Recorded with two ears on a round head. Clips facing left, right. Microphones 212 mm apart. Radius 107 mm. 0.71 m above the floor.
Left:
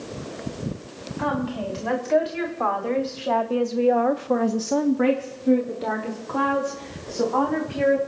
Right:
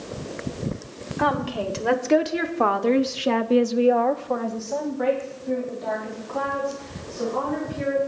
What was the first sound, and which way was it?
A woman speaking, 70° right (ahead or behind).